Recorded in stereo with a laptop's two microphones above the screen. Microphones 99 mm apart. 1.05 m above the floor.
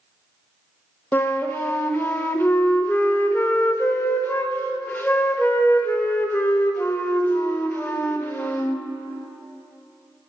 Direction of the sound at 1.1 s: 20° left (ahead or behind).